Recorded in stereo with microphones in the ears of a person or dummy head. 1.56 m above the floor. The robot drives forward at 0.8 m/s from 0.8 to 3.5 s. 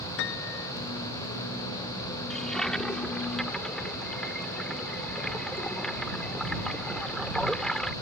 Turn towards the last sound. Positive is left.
turn(degrees=0)  # may be behind; listen again after turning